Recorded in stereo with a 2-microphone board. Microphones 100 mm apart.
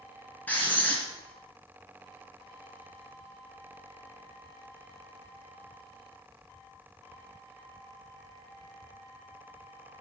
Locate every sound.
0.5 s writing: 15° left (ahead or behind), 1.9 m